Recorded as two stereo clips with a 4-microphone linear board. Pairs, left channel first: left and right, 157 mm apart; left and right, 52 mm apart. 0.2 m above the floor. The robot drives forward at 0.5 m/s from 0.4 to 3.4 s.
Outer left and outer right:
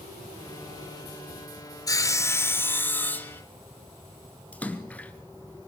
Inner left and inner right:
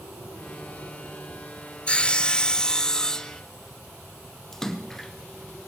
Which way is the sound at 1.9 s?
20° left (ahead or behind).